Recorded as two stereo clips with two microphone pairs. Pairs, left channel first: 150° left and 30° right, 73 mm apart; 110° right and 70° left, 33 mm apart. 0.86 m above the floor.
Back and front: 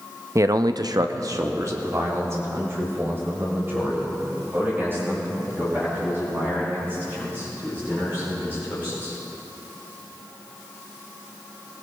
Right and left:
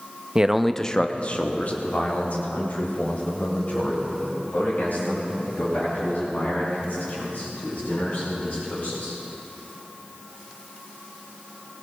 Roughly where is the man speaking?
Ahead.